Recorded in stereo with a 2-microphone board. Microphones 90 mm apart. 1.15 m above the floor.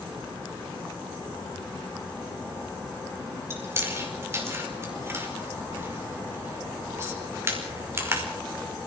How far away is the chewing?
About 5 m.